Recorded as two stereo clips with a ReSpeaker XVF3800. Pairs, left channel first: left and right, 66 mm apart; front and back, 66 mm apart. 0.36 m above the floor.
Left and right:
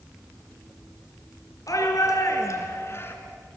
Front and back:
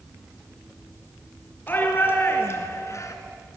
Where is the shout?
60° left, 5 m; by 3.2 s 35° left, 3.5 m.